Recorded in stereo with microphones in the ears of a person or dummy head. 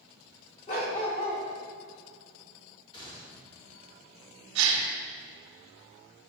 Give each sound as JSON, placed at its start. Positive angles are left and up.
{"t": 0.7, "sound": "a dog barking", "side_deg": 30, "distance_m": 1.0}
{"t": 2.9, "sound": "a gunshot", "side_deg": 30, "distance_m": 2.0}
{"t": 4.5, "sound": "a gasp", "side_deg": -75, "distance_m": 1.0}